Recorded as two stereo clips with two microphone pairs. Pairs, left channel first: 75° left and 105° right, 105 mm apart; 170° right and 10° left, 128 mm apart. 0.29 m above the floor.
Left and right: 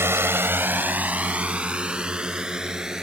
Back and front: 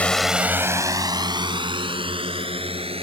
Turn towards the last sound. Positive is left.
turn(degrees=-25)